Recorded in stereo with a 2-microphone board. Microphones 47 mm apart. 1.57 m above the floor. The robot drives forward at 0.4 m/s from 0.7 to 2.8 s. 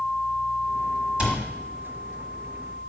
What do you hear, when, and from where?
1.2 s a cupboard door: 25° right (ahead or behind), 1.6 m